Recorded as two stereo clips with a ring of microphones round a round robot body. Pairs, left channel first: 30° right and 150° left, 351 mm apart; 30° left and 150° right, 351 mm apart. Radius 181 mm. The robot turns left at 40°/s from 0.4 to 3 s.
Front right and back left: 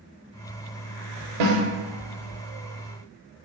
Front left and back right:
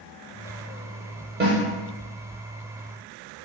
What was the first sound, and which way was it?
A snare drum, 150° left.